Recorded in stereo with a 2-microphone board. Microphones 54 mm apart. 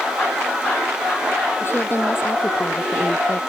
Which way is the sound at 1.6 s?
45° left (ahead or behind).